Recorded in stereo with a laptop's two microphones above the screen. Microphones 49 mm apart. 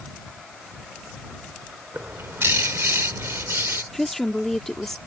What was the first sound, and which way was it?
A bird, 60° right (ahead or behind).